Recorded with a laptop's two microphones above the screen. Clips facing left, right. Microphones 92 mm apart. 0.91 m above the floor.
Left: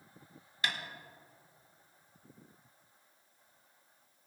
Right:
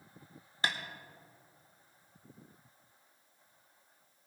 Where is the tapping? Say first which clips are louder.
Right 2 dB; 30° right (ahead or behind), 1.1 m.